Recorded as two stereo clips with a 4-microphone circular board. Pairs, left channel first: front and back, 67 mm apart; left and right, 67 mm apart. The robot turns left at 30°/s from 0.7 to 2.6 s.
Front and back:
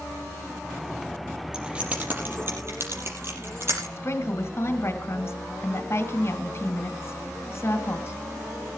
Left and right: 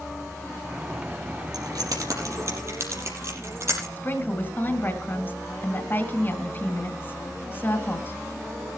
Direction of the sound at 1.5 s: 100° right.